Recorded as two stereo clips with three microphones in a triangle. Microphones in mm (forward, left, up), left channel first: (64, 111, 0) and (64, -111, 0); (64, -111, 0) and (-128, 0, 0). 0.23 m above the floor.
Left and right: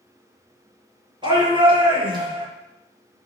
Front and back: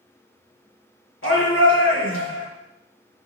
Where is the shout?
20° right, 4.5 m.